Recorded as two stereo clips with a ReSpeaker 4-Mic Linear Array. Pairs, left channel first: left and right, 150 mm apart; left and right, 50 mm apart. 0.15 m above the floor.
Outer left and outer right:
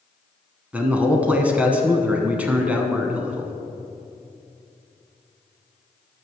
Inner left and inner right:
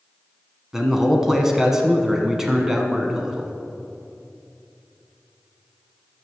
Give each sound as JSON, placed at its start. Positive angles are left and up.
{"t": 0.7, "sound": "a man speaking", "side_deg": -10, "distance_m": 1.0}